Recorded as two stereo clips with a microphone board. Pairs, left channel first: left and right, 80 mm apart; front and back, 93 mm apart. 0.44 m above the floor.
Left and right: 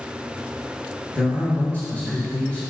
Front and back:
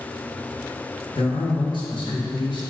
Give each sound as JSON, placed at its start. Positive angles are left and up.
{"t": 1.1, "sound": "a man speaking", "azimuth_deg": 30, "distance_m": 2.0}